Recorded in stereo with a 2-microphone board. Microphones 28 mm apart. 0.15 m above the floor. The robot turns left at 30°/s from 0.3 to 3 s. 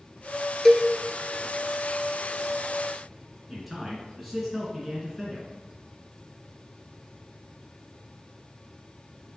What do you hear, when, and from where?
0.7 s a cowbell: centre (ahead or behind), 0.5 m; by 0.9 s 5° left (ahead or behind), 0.5 m
3.5 s a man speaking: 5° left (ahead or behind), 1.8 m